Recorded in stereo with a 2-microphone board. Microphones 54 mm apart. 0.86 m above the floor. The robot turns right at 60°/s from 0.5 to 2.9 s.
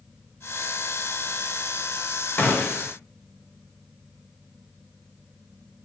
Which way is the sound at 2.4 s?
135° left.